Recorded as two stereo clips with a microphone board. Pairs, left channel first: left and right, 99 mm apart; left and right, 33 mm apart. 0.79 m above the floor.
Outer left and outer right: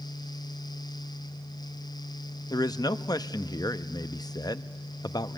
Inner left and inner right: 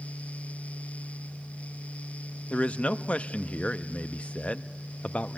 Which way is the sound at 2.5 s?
40° left (ahead or behind).